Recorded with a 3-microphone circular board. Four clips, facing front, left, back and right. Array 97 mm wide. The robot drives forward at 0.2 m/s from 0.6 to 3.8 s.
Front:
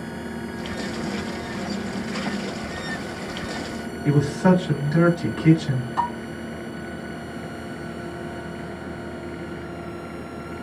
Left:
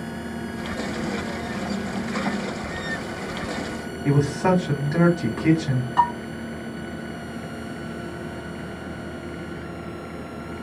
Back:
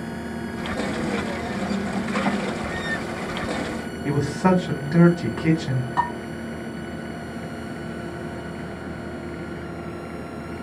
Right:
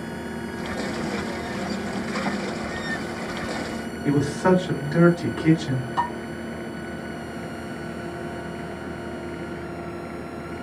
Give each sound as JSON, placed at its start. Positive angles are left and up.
{"t": 4.0, "sound": "a man speaking", "azimuth_deg": 150, "distance_m": 1.0}
{"t": 6.0, "sound": "dishes clattering", "azimuth_deg": 150, "distance_m": 2.0}